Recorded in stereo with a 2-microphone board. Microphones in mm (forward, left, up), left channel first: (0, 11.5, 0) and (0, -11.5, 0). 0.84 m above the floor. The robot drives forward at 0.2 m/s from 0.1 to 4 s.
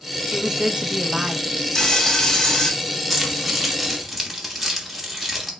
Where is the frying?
30° left (ahead or behind), 1.2 m; by 2.7 s 35° left (ahead or behind), 1.1 m.